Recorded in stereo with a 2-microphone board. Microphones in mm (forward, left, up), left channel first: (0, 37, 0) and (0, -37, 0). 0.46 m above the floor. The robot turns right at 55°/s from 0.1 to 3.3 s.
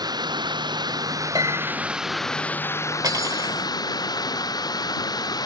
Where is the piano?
75° right (ahead or behind); by 1.8 s 55° right (ahead or behind).